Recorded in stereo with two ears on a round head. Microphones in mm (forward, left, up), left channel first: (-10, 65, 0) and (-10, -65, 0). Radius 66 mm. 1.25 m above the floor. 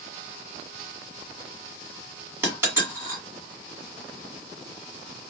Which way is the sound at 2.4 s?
15° right (ahead or behind).